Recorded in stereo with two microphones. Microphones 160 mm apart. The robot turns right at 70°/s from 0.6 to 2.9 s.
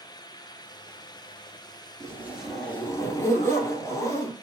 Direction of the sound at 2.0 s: 35° right.